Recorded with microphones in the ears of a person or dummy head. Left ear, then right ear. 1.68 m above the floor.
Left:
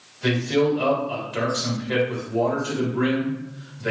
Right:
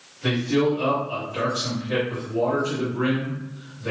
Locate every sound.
0.2 s a man speaking: 75° left (ahead or behind), 1.4 m